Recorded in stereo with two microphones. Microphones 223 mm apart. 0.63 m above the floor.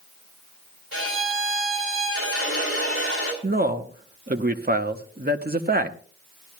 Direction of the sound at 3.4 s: 40° right (ahead or behind).